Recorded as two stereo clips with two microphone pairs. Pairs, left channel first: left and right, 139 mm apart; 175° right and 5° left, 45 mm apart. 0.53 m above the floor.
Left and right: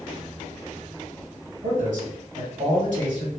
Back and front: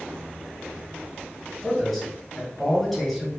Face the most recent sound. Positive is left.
turn(degrees=-95)